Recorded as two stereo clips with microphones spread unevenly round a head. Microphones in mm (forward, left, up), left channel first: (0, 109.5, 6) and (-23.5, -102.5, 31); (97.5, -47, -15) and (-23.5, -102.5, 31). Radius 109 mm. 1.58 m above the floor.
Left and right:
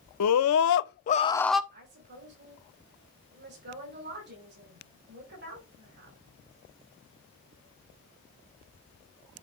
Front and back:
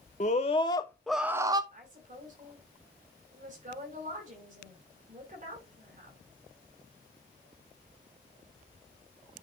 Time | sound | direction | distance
0.2 | a scream | 85° left | 0.8 m
1.7 | a woman speaking | 135° right | 5 m